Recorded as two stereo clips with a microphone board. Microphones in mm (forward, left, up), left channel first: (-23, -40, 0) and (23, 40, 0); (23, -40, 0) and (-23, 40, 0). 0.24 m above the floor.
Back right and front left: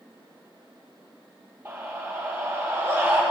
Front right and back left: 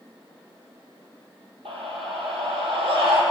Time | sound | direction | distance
1.6 | a scream | 125° left | 8 m